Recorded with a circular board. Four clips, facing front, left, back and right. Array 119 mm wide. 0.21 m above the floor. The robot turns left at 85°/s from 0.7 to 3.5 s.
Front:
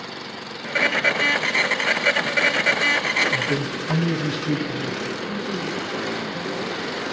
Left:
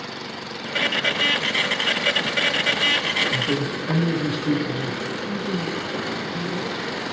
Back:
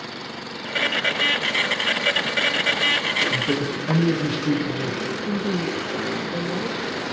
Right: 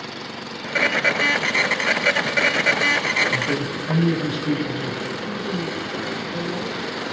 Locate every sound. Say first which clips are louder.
3.3 s a man speaking: even, back 1 dB; 170° right, 8 m; by 5.0 s 175° left, 8 m
5.3 s a woman speaking: left 1 dB, back 3 dB; 175° left, 5.5 m